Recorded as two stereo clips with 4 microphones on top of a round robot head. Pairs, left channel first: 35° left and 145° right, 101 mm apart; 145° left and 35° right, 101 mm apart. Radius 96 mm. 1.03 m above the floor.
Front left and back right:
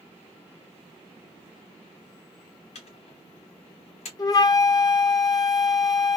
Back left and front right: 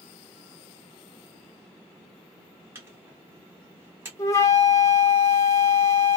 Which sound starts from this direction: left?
A flute, at 4.2 s.